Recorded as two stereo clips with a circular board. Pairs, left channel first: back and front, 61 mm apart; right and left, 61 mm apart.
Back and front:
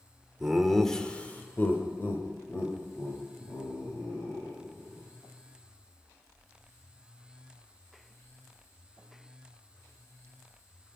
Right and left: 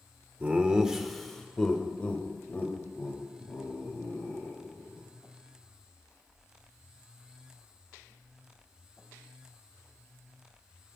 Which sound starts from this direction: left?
Laughter, at 0.4 s.